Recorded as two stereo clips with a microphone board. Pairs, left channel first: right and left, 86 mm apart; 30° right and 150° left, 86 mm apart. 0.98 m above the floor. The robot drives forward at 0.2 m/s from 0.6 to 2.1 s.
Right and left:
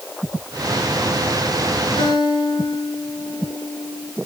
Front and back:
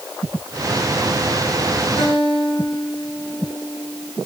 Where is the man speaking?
No man speaking in this recording.